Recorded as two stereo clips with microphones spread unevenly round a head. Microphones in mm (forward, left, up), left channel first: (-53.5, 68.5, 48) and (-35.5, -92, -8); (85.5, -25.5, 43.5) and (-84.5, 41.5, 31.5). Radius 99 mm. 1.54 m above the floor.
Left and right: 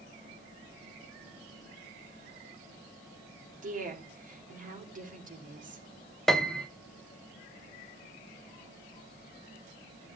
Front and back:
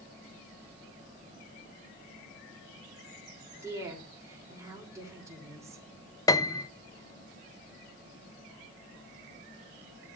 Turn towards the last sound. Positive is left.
turn(degrees=35)